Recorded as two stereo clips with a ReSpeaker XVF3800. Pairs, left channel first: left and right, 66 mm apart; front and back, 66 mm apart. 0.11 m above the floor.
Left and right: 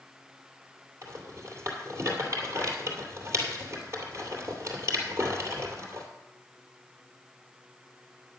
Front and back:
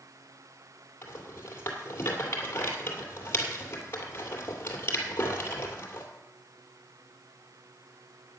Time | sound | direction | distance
1.0 | a rattle | 50° right | 2.5 m